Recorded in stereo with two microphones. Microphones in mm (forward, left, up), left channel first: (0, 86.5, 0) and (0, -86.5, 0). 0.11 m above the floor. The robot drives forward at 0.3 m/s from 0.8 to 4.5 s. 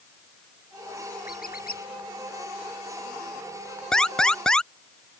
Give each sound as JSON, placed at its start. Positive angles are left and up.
{"t": 1.3, "sound": "a squeak", "side_deg": 60}
{"t": 3.9, "sound": "an alarm", "side_deg": 5}